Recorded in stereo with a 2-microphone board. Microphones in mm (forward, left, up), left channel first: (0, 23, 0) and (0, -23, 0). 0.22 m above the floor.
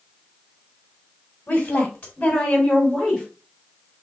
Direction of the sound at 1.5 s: 30° left (ahead or behind).